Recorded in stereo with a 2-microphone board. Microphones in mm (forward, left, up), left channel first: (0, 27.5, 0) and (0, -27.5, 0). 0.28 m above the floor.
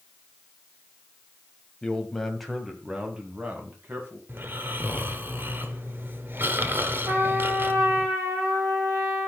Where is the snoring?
40° right (ahead or behind), 1.3 m.